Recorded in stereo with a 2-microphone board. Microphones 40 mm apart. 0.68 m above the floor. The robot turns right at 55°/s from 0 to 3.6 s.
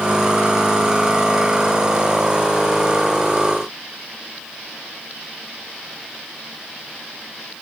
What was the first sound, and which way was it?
Only background noise.